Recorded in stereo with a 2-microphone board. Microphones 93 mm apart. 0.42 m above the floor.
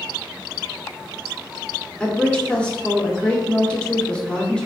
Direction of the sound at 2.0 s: 10° left (ahead or behind).